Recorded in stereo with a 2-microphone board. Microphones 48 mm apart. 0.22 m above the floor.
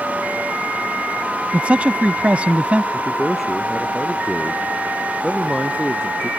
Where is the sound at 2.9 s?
Centre (ahead or behind).